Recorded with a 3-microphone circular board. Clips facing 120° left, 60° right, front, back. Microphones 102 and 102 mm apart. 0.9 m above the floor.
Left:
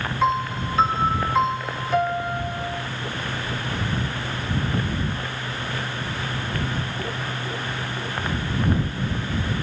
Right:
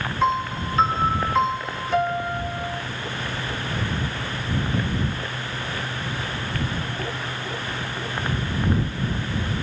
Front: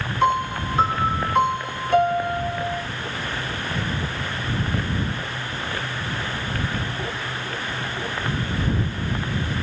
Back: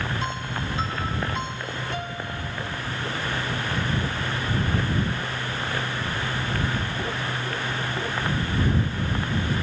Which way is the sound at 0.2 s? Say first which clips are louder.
Even, front 10 dB; 30° left.